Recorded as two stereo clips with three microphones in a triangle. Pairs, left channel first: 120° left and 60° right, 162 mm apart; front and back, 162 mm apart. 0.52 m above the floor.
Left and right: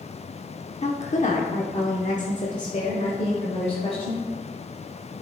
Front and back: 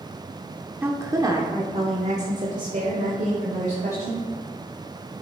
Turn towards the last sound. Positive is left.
turn(degrees=165)